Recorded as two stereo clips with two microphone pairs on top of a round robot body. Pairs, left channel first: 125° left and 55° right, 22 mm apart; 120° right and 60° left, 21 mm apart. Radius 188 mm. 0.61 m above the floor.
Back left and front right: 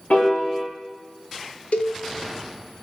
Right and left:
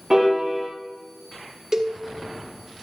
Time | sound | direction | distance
0.1 | a piano | 125° left | 4.5 m
1.7 | a cowbell | 125° left | 1.5 m